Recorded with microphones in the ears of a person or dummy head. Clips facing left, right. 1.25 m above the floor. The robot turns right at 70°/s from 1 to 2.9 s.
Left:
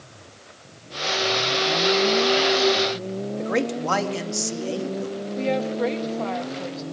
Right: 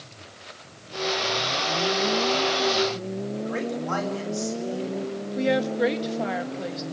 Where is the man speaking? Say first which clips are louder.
Left 7 dB; 75° left (ahead or behind), 3 m.